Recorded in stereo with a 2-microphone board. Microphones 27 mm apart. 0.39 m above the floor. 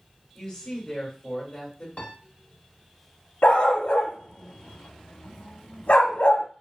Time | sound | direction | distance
0.3 | a woman speaking | 30° left (ahead or behind) | 1.6 m
2.0 | a piano | 50° left (ahead or behind) | 0.7 m
3.4 | a dog barking | 85° left | 0.7 m